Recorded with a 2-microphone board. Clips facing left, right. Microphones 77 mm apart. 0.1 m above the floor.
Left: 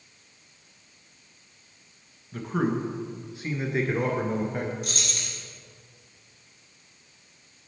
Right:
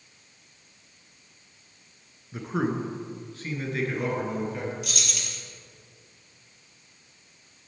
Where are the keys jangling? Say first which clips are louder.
Left 1 dB; 35° left (ahead or behind), 1.6 m.